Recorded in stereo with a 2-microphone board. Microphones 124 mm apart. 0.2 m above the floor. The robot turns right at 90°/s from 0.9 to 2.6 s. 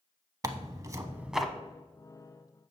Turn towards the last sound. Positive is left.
turn(degrees=105)